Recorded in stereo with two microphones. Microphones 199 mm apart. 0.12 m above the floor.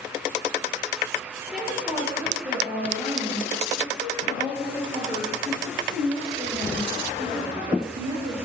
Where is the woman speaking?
Centre (ahead or behind), 3.5 m; by 8.4 s 40° right (ahead or behind), 6 m.